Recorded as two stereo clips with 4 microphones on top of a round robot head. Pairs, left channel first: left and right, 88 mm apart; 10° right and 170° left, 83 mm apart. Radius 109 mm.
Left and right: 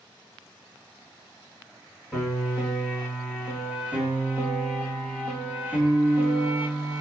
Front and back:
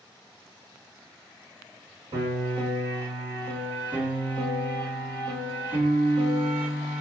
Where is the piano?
160° right, 2.5 m.